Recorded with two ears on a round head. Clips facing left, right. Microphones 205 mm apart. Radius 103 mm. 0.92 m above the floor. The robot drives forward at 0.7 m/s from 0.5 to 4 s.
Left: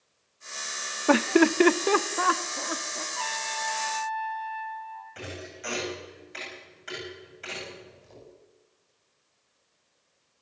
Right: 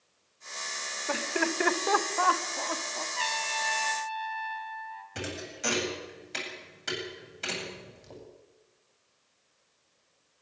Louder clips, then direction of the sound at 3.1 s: Even; 30° right (ahead or behind).